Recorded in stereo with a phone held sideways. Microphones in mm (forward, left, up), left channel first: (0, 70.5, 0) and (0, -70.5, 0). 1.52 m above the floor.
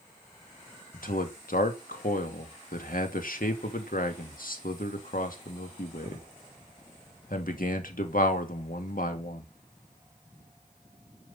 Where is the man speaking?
75° left (ahead or behind), 2.5 m.